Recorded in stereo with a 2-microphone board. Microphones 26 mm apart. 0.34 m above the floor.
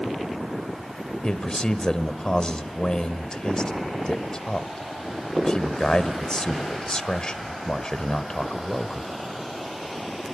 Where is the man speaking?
30° left (ahead or behind), 1.1 m.